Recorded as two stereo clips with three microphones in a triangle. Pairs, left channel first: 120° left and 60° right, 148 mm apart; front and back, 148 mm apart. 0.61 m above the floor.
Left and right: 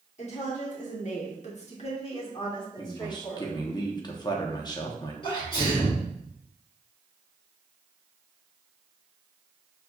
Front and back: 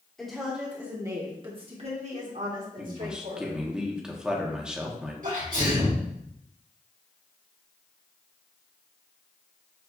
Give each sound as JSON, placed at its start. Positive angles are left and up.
{"t": 0.2, "sound": "a woman speaking", "azimuth_deg": 85, "distance_m": 1.3}
{"t": 2.8, "sound": "a man speaking", "azimuth_deg": 100, "distance_m": 0.8}
{"t": 5.2, "sound": "a sneeze", "azimuth_deg": 170, "distance_m": 1.9}